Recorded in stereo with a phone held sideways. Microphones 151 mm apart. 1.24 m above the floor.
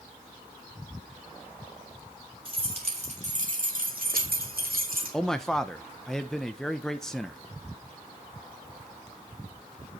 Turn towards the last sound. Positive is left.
turn(degrees=5)  # may be behind; listen again after turning